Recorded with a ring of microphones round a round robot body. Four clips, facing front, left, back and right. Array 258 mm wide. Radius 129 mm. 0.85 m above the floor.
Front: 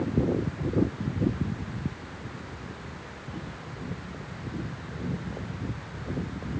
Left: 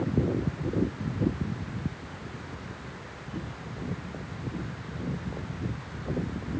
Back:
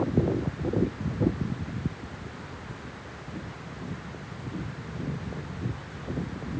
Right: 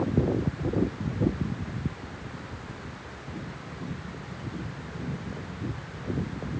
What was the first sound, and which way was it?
Only background noise.